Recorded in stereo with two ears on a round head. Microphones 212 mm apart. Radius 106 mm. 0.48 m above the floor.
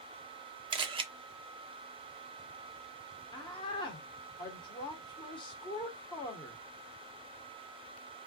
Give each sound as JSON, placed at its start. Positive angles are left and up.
{"t": 0.7, "sound": "a camera shutter", "side_deg": -20, "distance_m": 0.5}
{"t": 3.3, "sound": "a woman speaking", "side_deg": 20, "distance_m": 1.0}